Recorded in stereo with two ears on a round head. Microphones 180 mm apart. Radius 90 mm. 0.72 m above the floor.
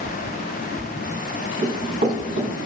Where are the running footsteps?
40° right (ahead or behind), 5.5 m.